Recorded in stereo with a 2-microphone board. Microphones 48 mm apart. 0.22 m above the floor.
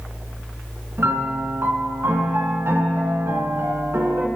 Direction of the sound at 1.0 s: 55° right (ahead or behind).